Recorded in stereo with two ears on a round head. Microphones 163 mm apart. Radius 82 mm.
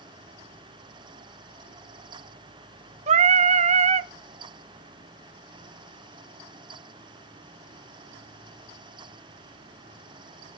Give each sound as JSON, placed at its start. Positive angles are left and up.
{"t": 3.1, "sound": "singing", "side_deg": -35, "distance_m": 0.5}